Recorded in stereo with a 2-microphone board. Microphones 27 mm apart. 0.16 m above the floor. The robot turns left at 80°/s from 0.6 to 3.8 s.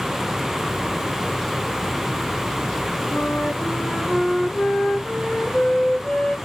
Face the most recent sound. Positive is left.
turn(degrees=45)